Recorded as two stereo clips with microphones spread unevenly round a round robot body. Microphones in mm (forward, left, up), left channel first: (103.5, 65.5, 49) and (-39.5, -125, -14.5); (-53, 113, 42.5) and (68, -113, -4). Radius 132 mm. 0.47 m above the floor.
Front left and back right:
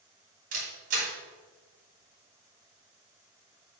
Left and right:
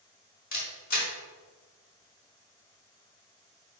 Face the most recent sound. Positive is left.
turn(degrees=175)